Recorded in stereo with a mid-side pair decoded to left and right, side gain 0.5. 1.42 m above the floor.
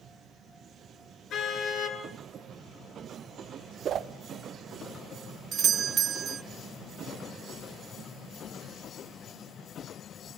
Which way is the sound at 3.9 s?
55° right.